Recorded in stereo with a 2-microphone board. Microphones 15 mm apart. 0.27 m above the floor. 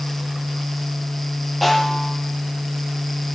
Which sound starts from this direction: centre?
A snare drum, at 1.6 s.